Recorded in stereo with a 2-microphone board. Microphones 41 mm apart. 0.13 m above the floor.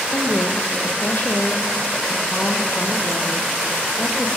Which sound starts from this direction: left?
A woman speaking, at 0.1 s.